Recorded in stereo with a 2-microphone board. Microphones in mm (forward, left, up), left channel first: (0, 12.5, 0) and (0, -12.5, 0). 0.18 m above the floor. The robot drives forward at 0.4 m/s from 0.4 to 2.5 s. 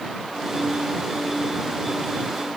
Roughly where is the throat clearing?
No throat clearing in this recording.